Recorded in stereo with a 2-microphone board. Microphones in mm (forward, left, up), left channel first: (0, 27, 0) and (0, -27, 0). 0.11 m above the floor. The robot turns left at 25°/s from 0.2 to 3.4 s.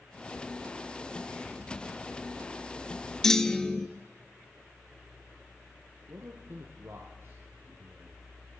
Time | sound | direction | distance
3.2 | a clunk | 5° left (ahead or behind) | 0.5 m
6.1 | a man speaking | 50° right (ahead or behind) | 2 m